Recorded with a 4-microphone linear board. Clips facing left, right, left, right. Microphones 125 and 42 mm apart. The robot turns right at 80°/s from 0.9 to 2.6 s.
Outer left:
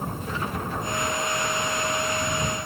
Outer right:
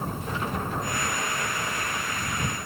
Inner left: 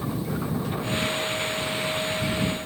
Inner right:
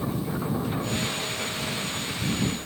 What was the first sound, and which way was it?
Only background noise.